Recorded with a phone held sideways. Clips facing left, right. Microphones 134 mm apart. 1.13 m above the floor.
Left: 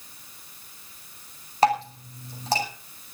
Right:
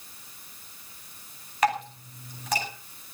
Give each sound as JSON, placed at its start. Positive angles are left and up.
{"t": 1.6, "sound": "dripping", "side_deg": 30, "distance_m": 9.5}